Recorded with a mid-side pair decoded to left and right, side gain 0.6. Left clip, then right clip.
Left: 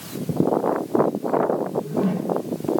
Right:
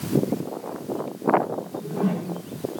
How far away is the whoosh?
About 3 m.